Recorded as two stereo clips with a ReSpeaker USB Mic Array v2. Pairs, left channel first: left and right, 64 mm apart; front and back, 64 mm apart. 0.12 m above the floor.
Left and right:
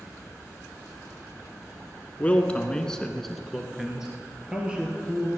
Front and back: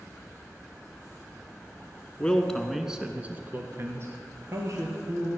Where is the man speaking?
55° left, 1.4 m; by 5.3 s 160° right, 2.5 m.